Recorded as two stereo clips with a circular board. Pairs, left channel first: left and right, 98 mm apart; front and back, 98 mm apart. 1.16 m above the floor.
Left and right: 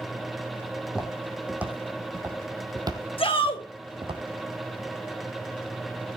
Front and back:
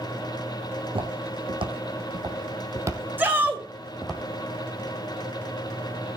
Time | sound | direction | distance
0.7 | footsteps | 175° right | 3.5 m
3.2 | a shout | 110° left | 5.5 m